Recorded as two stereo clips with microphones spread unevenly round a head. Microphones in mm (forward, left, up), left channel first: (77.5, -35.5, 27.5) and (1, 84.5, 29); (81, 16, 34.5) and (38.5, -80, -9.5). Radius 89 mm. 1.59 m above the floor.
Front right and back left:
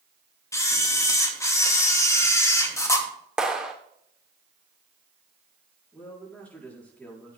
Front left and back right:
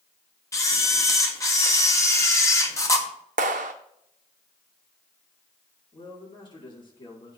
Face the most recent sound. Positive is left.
turn(degrees=25)